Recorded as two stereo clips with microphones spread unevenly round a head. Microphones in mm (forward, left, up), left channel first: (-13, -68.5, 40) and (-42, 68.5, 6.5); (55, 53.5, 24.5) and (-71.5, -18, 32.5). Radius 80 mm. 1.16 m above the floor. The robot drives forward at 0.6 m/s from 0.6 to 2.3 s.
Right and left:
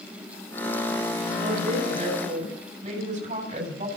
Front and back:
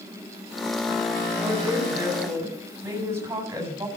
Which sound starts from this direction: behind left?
A woman speaking, at 1.4 s.